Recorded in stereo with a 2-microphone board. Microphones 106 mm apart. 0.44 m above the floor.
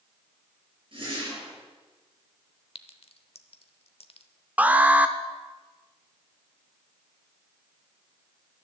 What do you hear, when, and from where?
0.9 s a whoosh: 50° right (ahead or behind), 6 m
2.8 s a clink: 65° left (ahead or behind), 0.9 m
4.6 s an alarm: 15° right (ahead or behind), 0.8 m